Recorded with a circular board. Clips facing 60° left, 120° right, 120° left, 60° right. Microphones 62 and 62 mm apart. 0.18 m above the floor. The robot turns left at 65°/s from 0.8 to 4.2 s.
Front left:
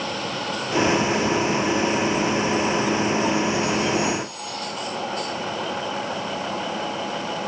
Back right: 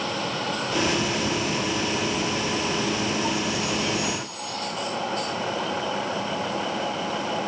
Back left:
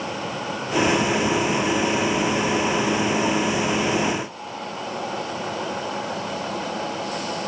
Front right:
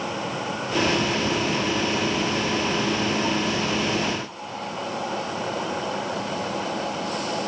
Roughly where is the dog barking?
No dog barking in this recording.